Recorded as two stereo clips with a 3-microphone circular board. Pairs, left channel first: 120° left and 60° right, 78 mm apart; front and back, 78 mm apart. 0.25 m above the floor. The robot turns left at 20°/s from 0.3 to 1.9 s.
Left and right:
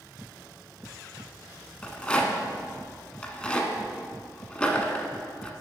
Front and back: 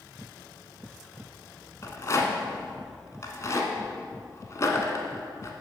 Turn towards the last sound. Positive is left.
turn(degrees=45)